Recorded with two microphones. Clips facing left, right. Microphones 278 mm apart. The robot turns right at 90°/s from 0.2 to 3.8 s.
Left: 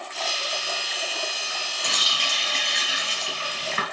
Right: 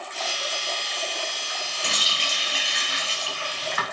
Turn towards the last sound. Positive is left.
turn(degrees=95)